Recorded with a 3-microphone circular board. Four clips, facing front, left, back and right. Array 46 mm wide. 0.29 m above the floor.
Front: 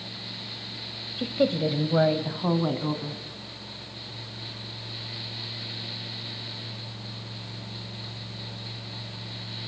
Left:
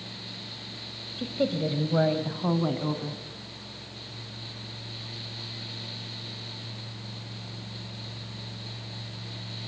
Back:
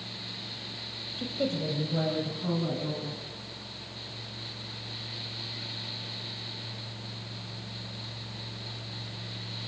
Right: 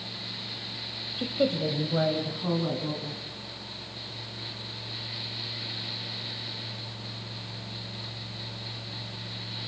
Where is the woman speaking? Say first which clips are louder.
Right 1 dB, front 7 dB; 40° right, 1.3 m; by 3.2 s 40° left, 3 m.